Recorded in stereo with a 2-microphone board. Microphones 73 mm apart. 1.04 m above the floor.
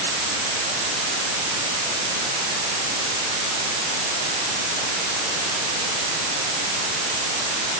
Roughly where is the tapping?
No tapping in this recording.